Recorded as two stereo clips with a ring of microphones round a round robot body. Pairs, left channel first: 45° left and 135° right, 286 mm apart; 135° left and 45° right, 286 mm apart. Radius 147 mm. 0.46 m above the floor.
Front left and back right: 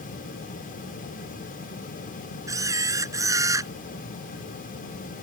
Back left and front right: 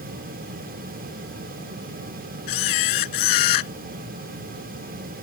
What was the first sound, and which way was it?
A camera shutter, 145° left.